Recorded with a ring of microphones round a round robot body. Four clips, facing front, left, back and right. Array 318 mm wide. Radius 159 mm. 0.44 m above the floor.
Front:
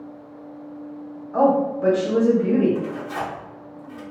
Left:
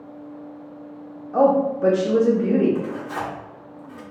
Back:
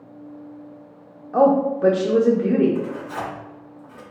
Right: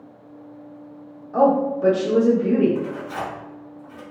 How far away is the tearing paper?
About 1.4 m.